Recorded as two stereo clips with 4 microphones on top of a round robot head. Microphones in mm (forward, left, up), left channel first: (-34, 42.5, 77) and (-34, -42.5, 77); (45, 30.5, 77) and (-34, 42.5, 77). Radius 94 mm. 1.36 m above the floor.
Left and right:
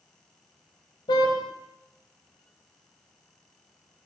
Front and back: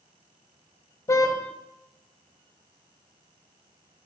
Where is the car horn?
45° left, 3 m.